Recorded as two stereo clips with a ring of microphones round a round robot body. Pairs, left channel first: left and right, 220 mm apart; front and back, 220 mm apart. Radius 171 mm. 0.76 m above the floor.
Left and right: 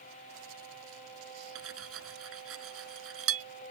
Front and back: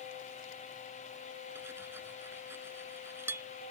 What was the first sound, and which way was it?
Cutlery clinking, 95° right.